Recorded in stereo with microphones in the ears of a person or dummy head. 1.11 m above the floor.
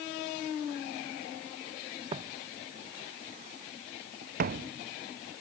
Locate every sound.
2.1 s footsteps: 25° right (ahead or behind); by 4.7 s 55° right (ahead or behind)